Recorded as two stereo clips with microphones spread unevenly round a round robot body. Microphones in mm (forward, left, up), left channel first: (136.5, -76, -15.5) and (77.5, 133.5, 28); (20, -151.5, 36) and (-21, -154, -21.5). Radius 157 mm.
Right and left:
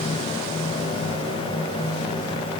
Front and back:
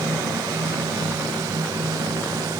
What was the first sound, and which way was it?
Only background noise.